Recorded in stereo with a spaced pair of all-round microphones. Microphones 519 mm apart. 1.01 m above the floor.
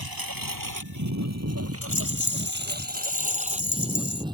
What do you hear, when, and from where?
0.0 s a lawn mower: 45° right (ahead or behind); by 4.3 s 10° right (ahead or behind)
1.8 s a rattle: 35° left (ahead or behind)